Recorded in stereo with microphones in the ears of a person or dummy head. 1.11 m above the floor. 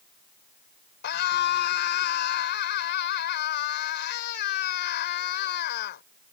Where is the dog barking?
I don't hear a dog barking.